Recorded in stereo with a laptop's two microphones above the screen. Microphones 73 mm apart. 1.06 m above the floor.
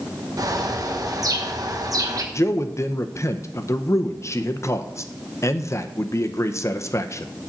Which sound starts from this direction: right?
A bird, at 0.4 s.